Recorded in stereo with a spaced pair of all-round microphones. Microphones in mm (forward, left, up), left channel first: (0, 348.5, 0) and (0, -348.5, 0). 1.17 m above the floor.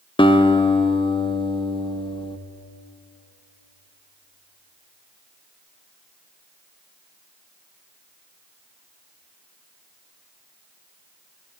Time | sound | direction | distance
0.2 | a guitar | 10° left (ahead or behind) | 0.6 m